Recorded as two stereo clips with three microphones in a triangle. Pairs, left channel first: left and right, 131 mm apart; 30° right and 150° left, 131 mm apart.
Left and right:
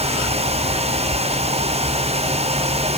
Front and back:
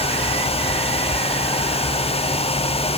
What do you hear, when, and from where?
Only background noise.